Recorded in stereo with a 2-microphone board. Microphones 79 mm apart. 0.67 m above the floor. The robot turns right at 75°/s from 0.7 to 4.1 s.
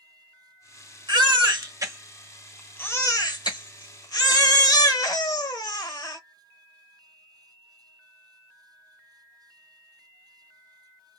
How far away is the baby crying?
About 1.0 m.